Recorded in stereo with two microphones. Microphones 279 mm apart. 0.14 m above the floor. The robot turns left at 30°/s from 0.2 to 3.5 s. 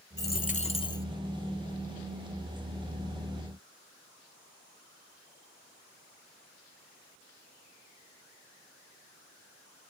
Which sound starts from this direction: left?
A dropped coin, at 0.2 s.